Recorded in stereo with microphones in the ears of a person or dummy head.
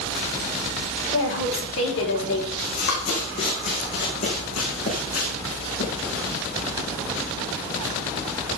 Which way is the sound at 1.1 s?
75° left (ahead or behind).